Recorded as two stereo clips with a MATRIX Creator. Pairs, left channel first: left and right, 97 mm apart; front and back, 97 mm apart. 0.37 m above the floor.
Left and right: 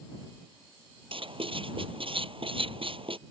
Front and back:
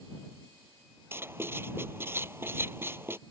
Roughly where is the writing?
Behind right.